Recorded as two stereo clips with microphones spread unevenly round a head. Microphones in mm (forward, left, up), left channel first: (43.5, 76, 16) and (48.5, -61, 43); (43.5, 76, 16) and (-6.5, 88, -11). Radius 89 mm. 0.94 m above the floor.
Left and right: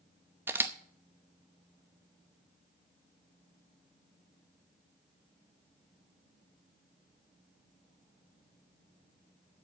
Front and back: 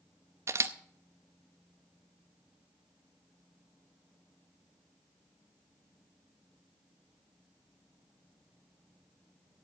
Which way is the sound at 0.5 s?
170° right.